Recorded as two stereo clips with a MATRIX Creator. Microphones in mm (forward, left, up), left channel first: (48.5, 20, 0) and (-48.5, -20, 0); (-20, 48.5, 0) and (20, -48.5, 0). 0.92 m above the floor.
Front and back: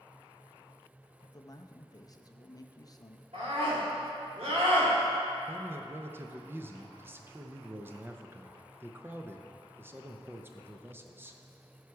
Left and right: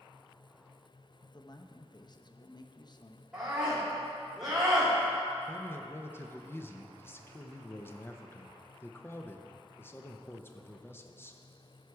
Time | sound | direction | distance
1.2 | a man speaking | 70° left | 0.6 m
3.3 | a scream | 145° right | 4 m
5.5 | a man speaking | 160° left | 0.7 m